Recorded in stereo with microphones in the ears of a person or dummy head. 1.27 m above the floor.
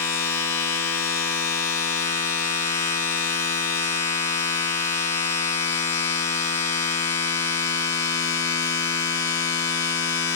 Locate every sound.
0.0 s a machine running: 15° left (ahead or behind), 1.0 m